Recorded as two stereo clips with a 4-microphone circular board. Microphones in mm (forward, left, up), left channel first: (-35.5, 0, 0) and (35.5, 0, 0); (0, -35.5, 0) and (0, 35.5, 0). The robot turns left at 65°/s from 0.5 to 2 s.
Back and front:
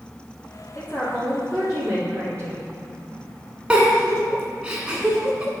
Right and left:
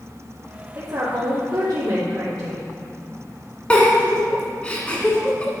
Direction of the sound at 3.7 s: 45° right.